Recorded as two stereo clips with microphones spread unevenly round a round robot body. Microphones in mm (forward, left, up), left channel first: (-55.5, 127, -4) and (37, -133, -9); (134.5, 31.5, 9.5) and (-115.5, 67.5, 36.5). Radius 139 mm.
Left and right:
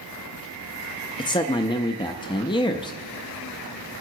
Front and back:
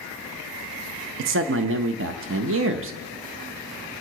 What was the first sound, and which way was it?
A man speaking, straight behind.